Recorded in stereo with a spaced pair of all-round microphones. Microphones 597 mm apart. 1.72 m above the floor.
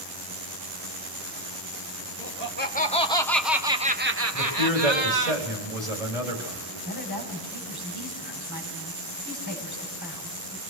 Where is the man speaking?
85° right, 4.5 m.